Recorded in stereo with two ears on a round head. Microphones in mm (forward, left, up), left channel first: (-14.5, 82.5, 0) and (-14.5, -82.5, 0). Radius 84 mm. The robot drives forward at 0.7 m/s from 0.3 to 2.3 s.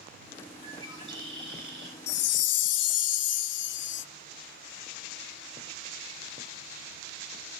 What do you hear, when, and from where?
0.6 s a bird: 30° right (ahead or behind), 4 m; by 2.9 s 20° right (ahead or behind), 5 m
2.1 s a chime: 55° left (ahead or behind), 0.5 m; by 4.0 s 65° left (ahead or behind), 0.5 m